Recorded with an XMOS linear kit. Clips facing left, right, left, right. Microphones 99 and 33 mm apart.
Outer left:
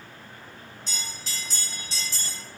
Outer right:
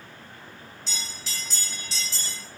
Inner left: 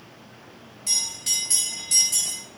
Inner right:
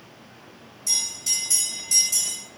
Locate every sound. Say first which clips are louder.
0.9 s a bell: even, even; 45° left (ahead or behind), 1.8 m